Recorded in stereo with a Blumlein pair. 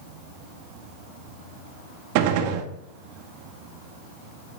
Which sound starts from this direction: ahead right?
A gunshot, at 2.1 s.